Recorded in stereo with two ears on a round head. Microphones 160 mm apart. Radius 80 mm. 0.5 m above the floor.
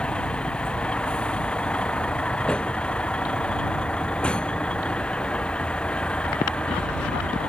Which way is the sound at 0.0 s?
5° left (ahead or behind).